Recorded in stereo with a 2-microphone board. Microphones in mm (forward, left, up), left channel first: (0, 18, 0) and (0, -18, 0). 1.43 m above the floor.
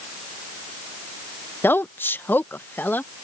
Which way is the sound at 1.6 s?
80° left.